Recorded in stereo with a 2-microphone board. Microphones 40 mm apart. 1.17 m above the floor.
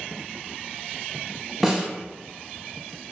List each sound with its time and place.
1.6 s a snare drum: 5° right (ahead or behind), 0.8 m